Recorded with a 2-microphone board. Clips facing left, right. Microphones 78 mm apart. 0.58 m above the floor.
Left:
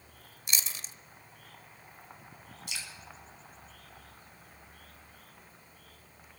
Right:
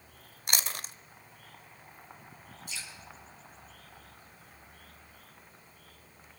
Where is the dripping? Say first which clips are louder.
Left 1 dB; 85° left, 2.5 m.